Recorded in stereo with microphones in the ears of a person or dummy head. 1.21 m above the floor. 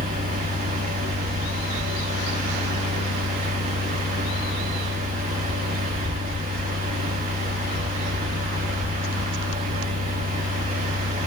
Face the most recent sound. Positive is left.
turn(degrees=-35)  # may be behind; listen again after turning